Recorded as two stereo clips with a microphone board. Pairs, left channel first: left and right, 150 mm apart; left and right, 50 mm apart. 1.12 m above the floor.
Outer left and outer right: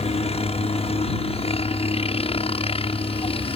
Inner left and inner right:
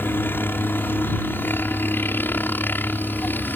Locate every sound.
0.0 s a helicopter: 45° left (ahead or behind); by 3.6 s 40° left (ahead or behind)